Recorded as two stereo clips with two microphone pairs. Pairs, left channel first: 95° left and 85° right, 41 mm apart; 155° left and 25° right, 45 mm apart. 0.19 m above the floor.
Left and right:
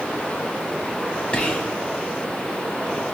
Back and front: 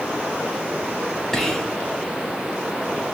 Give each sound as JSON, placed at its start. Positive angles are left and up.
{"t": 1.3, "sound": "whispering", "azimuth_deg": 95, "distance_m": 1.3}